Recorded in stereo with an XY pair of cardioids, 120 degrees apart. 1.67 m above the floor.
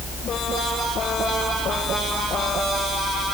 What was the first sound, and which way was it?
Only background noise.